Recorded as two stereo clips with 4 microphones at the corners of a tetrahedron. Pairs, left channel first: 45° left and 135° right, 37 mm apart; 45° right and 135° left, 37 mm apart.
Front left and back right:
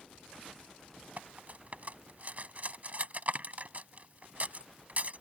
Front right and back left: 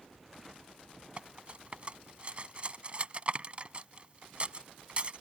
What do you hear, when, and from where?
1.2 s cutlery clinking: 175° right